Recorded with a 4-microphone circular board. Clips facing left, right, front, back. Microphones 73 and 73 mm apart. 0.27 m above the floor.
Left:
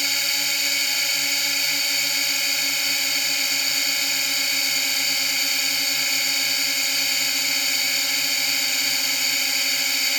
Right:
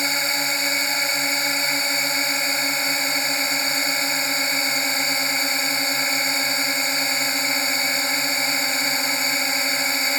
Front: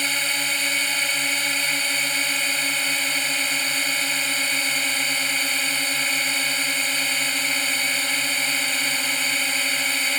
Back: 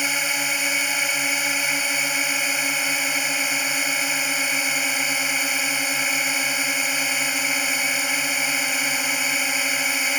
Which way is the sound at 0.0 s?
110° right.